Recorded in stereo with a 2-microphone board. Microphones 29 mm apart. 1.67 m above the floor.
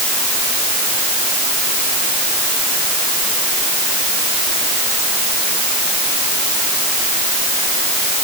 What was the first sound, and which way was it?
Only background noise.